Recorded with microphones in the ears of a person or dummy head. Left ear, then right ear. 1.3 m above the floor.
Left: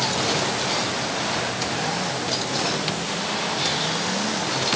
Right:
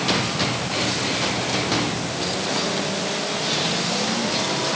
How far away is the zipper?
No zipper in this recording.